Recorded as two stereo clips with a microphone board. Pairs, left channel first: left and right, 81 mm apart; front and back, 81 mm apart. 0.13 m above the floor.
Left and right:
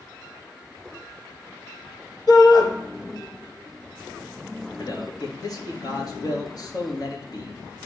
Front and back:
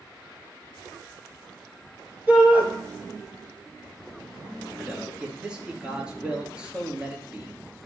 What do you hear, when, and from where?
2.3 s a shout: 110° left, 2.5 m
4.8 s a man speaking: 105° left, 2.0 m